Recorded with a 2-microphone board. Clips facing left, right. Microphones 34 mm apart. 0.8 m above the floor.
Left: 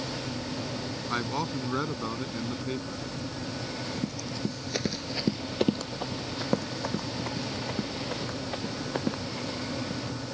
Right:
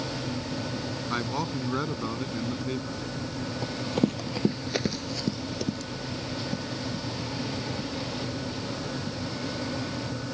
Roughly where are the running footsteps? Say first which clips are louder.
Right 10 dB; right.